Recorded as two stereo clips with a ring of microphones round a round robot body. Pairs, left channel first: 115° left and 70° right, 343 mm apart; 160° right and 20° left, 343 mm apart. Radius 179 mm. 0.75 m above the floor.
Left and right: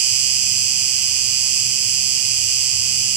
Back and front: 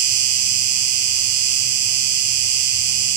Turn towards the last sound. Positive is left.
turn(degrees=-15)